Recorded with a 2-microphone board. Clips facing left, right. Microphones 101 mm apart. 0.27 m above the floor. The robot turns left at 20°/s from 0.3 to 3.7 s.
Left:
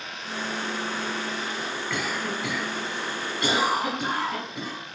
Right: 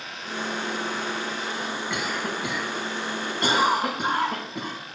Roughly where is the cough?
Centre.